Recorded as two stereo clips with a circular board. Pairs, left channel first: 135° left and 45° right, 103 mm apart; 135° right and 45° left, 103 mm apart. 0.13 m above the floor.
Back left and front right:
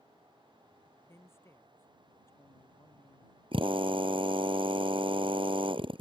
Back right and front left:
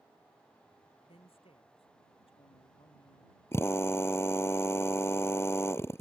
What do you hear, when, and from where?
1.1 s a man speaking: 160° right
3.5 s a drill: 70° right